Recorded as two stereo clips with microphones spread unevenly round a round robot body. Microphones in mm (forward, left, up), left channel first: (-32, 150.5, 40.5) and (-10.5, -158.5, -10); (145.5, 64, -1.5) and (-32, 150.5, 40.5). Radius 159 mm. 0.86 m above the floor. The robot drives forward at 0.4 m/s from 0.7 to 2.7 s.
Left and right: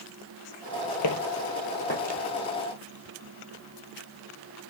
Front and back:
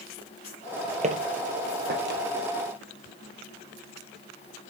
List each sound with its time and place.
1.0 s footsteps: 115° left, 1.7 m; by 2.2 s 155° left, 1.8 m